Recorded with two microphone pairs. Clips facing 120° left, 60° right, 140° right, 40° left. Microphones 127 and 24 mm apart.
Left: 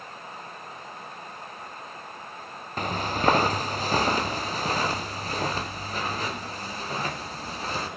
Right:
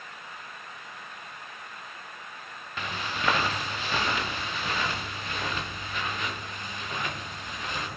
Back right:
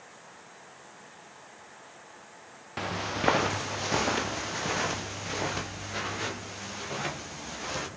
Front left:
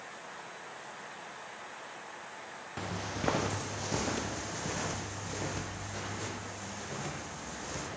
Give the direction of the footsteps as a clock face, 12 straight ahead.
6 o'clock.